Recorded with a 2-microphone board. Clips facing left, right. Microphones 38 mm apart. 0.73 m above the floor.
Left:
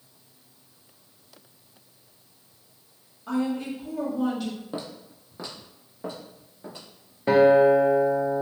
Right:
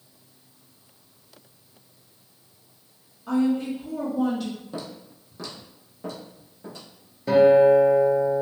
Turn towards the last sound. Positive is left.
turn(degrees=35)  # may be behind; listen again after turning